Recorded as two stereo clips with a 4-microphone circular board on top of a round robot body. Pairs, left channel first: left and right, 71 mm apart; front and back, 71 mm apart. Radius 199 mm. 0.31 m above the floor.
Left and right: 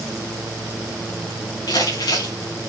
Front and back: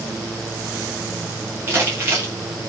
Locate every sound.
1.7 s crumpling: 120° left, 9.5 m